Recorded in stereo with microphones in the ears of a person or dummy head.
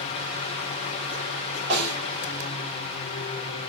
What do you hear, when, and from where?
1.7 s a snare drum: 60° right (ahead or behind), 2.0 m